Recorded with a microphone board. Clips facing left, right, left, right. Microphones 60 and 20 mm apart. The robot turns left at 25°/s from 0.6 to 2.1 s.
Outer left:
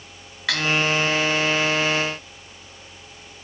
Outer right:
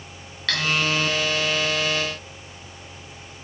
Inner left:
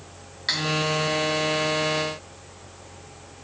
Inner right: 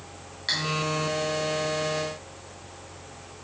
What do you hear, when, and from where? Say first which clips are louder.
0.5 s cutlery clinking: outer left 1 dB, inner left 2 dB; 10° left (ahead or behind), 1.9 m; by 0.6 s 15° left (ahead or behind), 1.9 m